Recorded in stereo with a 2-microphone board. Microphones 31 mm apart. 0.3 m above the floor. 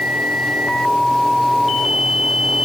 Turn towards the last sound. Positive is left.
No sound to turn to.